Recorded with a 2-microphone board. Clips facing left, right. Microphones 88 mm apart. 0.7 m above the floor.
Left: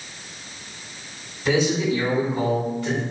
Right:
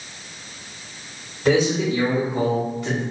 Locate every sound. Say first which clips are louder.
1.4 s a man speaking: right 2 dB; 55° right (ahead or behind), 1.9 m; by 3.0 s 10° right (ahead or behind), 1.2 m